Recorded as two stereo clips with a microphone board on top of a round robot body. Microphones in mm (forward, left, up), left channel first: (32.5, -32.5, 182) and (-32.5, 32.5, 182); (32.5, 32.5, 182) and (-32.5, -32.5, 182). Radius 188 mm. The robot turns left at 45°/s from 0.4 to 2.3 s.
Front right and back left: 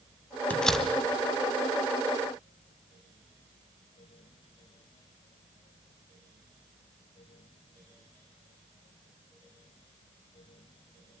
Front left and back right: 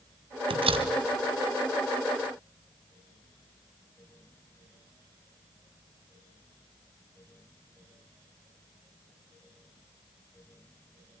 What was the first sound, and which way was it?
A door slam, 120° right.